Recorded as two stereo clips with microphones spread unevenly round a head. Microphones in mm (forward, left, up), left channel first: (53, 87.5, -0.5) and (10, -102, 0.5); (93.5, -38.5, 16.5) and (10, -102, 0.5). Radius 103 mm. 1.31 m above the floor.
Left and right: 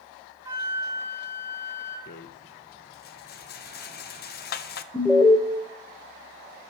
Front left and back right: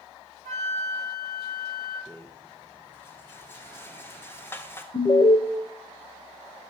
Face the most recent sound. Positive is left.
turn(degrees=0)